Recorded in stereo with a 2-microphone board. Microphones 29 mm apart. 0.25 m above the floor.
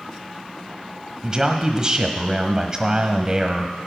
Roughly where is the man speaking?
Right.